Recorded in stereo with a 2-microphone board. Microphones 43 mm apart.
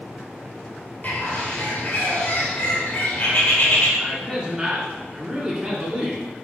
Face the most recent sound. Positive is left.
turn(degrees=-20)  # may be behind; listen again after turning